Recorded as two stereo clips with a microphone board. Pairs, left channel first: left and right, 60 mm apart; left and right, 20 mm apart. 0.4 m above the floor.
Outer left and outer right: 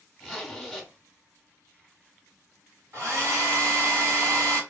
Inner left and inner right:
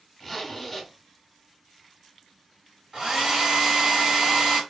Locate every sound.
0.2 s a zipper: 5° left (ahead or behind), 1.1 m
2.9 s a hair dryer: 50° right (ahead or behind), 1.8 m